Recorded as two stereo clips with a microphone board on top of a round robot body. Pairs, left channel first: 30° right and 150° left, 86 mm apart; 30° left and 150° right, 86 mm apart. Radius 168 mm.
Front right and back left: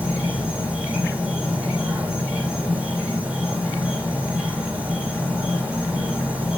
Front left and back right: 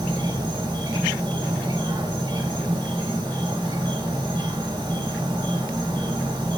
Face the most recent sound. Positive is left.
turn(degrees=-135)